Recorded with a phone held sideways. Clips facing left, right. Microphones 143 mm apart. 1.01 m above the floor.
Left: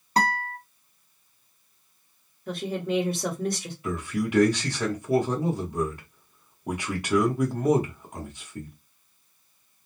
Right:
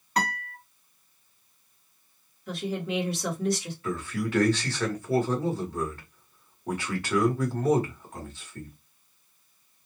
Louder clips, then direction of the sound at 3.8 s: Left 2 dB; 15° left (ahead or behind).